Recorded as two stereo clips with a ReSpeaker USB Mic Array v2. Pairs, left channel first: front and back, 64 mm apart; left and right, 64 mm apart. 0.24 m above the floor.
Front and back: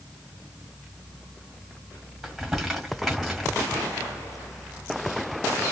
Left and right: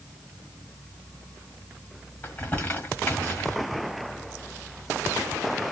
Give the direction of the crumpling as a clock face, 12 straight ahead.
9 o'clock.